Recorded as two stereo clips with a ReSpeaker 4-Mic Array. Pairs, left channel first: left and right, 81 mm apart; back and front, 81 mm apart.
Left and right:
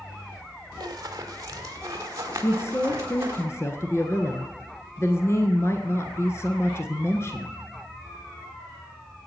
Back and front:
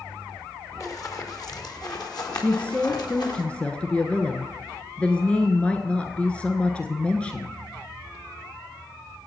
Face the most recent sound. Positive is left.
turn(degrees=115)